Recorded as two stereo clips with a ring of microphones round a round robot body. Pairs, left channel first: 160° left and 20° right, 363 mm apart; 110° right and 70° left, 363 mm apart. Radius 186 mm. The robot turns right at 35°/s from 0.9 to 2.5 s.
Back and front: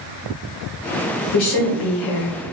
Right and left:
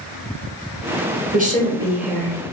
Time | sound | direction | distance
1.3 | a woman speaking | 130° left | 0.9 m